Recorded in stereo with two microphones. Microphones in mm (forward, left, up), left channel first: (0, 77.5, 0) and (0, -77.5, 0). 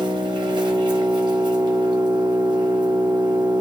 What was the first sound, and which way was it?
An engine running, 30° right (ahead or behind).